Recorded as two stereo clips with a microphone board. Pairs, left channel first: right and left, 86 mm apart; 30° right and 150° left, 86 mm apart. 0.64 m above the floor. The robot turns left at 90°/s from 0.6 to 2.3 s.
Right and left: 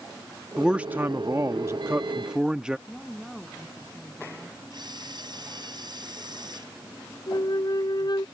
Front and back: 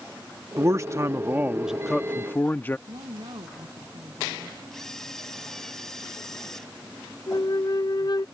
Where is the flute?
60° right.